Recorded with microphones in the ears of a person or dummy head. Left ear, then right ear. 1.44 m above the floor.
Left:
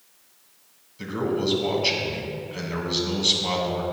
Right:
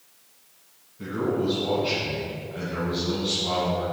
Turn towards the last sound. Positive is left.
turn(degrees=75)  # may be behind; listen again after turning